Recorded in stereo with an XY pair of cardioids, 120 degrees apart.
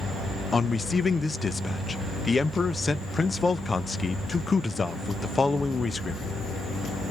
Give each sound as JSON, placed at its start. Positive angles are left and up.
{"t": 0.5, "sound": "a man speaking", "azimuth_deg": 20, "distance_m": 0.5}